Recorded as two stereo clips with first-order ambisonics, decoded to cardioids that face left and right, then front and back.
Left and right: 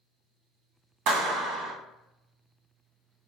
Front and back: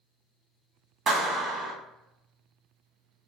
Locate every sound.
1.1 s a clap: 120° right, 1.1 m